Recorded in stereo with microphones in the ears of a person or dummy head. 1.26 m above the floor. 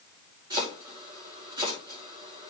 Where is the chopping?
25° right (ahead or behind), 5.5 m.